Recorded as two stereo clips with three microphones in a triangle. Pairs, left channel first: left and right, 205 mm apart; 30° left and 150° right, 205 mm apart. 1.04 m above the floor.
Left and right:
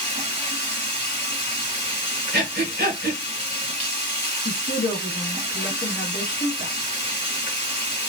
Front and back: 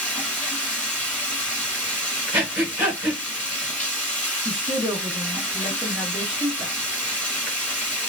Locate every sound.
0.0 s running water: 110° left, 1.5 m
2.3 s breathing: 70° right, 1.3 m
4.5 s a woman speaking: 125° left, 1.0 m